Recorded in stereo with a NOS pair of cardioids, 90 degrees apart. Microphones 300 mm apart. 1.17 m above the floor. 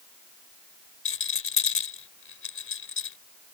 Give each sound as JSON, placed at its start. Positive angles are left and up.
{"t": 1.1, "sound": "a rattle", "azimuth_deg": 45}